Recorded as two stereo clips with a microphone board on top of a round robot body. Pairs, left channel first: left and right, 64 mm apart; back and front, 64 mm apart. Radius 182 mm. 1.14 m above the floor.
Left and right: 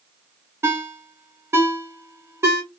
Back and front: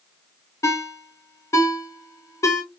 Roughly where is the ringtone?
Behind right.